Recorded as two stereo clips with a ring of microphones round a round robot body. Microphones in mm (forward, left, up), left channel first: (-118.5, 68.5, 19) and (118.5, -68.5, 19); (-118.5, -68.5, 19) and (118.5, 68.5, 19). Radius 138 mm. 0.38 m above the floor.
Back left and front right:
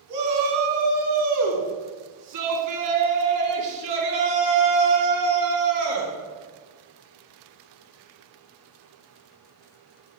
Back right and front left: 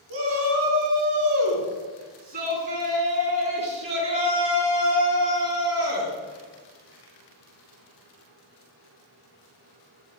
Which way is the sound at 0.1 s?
10° right.